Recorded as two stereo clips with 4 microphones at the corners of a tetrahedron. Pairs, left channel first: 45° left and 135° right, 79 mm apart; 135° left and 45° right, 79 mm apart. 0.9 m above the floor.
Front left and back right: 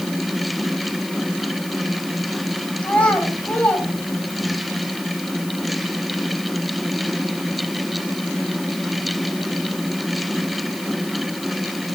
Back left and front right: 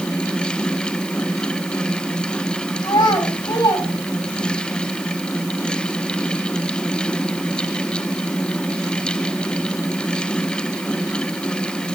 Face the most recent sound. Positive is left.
turn(degrees=120)